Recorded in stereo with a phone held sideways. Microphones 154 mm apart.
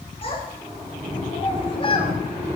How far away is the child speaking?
About 3 m.